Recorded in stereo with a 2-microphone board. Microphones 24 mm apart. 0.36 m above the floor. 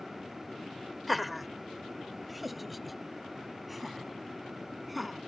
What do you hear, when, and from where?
1.1 s laughter: centre (ahead or behind)